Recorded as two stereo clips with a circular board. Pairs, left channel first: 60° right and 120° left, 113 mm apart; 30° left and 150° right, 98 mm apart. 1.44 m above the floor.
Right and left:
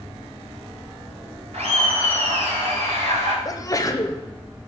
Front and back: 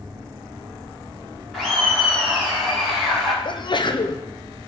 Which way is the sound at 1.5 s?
120° left.